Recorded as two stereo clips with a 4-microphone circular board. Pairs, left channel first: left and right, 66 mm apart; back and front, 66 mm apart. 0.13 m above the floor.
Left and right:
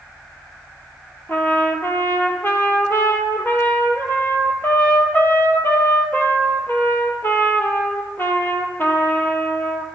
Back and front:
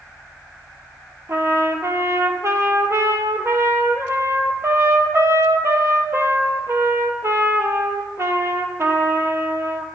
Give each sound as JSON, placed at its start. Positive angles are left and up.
{"t": 1.3, "sound": "a trumpet", "azimuth_deg": 40, "distance_m": 0.7}